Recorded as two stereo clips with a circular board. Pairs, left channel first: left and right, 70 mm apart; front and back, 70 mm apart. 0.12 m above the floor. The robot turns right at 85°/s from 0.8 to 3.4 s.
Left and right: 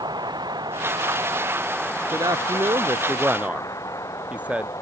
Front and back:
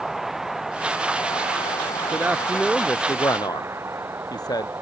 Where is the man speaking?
130° right; by 4.7 s 20° right.